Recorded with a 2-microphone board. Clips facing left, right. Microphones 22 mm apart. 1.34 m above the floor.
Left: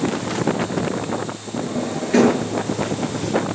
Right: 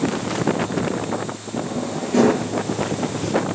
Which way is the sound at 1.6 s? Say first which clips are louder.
Left 2 dB; 50° left (ahead or behind).